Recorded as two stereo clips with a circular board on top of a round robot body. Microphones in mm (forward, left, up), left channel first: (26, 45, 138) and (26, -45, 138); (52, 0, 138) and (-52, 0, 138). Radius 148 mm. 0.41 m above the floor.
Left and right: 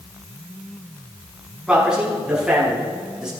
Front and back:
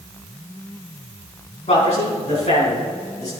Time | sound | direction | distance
1.7 | a man speaking | 10° right | 5 m